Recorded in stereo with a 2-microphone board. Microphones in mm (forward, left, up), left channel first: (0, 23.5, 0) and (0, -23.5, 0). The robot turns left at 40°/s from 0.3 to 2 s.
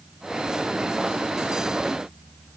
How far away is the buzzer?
No buzzer in this recording.